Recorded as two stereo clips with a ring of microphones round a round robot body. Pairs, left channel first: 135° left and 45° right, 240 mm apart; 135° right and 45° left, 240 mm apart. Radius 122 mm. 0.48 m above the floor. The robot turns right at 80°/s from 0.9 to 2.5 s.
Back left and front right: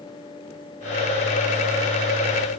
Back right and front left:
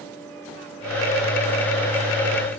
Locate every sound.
Only background noise.